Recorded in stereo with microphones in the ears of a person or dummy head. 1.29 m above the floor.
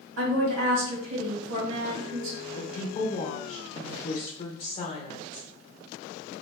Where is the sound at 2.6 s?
25° left (ahead or behind), 0.8 m.